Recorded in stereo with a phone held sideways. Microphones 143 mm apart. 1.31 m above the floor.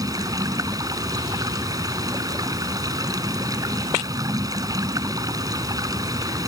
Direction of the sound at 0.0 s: 25° right (ahead or behind).